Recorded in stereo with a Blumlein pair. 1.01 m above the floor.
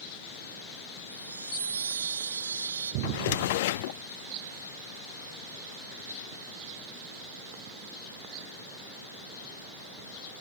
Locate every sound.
1.1 s a chime: 70° right
3.0 s a drawer: 55° left